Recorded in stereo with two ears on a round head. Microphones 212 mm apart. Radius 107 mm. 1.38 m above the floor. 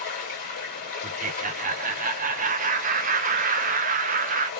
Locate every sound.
0.0 s running water: 45° left (ahead or behind), 1.9 m
1.0 s laughter: 35° right (ahead or behind), 0.6 m